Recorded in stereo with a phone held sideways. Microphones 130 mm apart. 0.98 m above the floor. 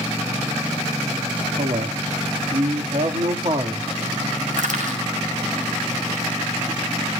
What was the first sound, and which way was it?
A man speaking, 75° right (ahead or behind).